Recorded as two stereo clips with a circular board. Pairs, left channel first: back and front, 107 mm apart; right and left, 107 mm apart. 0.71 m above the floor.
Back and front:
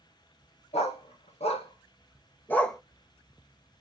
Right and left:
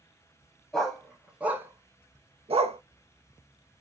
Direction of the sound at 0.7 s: 175° right.